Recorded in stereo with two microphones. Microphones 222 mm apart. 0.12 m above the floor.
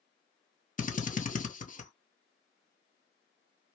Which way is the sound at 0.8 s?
35° left (ahead or behind).